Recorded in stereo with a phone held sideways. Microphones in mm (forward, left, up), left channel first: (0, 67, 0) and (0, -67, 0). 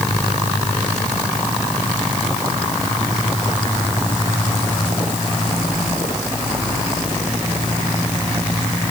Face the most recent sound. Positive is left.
No sound to turn to.